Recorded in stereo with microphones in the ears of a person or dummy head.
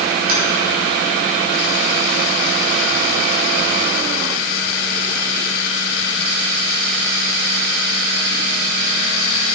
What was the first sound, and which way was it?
Tapping, 55° right (ahead or behind).